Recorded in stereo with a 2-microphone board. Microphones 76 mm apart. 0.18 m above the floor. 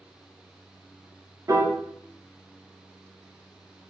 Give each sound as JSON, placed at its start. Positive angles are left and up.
{"t": 1.5, "sound": "a piano", "side_deg": -45, "distance_m": 0.5}